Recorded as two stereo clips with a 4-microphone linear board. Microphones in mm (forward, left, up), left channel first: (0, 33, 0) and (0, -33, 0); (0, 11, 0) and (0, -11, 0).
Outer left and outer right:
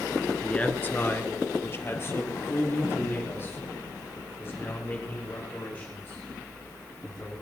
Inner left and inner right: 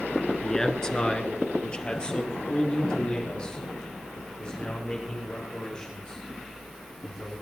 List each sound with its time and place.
0.4 s a man speaking: 15° left (ahead or behind), 1.3 m; by 7.3 s 35° left (ahead or behind), 9.5 m